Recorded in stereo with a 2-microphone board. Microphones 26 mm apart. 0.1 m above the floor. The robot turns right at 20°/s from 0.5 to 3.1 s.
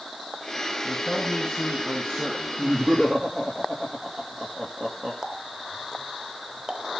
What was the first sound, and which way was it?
A man speaking, 15° right.